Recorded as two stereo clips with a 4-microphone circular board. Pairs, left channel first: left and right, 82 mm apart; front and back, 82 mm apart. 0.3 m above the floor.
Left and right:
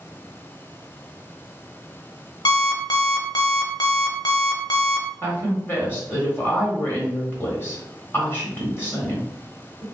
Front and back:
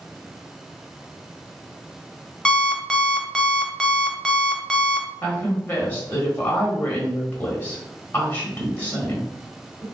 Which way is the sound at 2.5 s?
80° left.